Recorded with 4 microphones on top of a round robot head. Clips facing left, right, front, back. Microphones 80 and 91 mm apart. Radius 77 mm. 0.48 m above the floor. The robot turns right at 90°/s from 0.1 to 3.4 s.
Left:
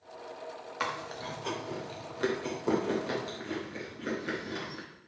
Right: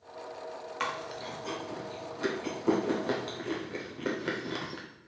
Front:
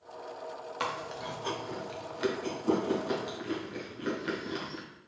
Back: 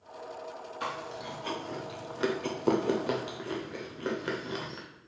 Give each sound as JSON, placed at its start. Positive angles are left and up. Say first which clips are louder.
{"t": 0.8, "sound": "chewing", "louder": "even, front 1 dB", "azimuth_deg": 5, "distance_m": 0.8}